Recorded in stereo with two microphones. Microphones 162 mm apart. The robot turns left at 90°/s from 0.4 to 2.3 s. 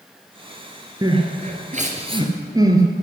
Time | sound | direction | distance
1.0 | crying | 25° right (ahead or behind) | 1.6 m